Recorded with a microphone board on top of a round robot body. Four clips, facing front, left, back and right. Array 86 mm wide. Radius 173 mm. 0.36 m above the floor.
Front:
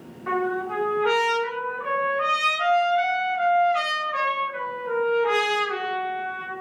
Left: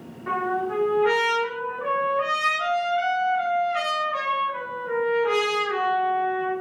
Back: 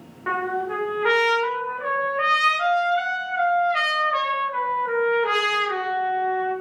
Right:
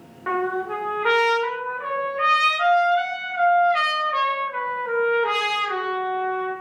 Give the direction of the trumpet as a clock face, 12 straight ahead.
4 o'clock.